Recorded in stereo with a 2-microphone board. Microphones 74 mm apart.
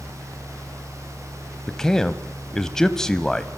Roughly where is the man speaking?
Centre.